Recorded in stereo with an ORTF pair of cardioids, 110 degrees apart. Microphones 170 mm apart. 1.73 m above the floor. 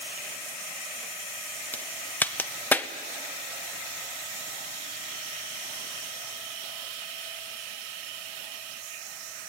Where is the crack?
10° left, 0.9 m.